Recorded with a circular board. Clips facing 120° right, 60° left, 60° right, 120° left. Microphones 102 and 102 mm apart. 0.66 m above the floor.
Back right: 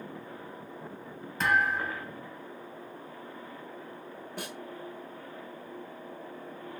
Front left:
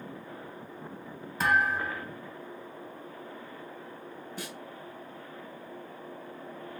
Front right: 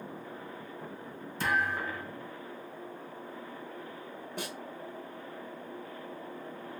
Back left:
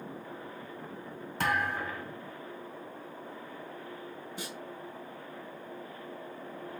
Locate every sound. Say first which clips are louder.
1.4 s a thud: front left 1 dB, even; 145° left, 1.8 m
4.4 s a snare drum: back right 2 dB, front right 4 dB; 90° right, 1.1 m